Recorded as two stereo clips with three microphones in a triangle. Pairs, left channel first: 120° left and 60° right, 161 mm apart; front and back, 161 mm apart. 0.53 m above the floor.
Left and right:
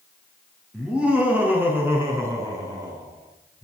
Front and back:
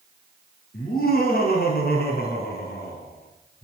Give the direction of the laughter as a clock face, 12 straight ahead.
11 o'clock.